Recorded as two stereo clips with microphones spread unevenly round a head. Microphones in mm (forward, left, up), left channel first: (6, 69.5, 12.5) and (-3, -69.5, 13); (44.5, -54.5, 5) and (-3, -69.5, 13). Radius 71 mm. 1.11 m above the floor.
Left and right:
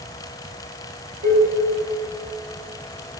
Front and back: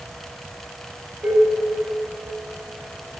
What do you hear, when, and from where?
1.2 s dishes clattering: 115° right, 7 m